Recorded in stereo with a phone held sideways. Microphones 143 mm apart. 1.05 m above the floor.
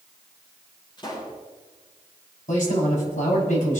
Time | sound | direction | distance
1.0 | a pop | 30° left (ahead or behind) | 7.5 m
2.5 | a man speaking | 60° left (ahead or behind) | 6.5 m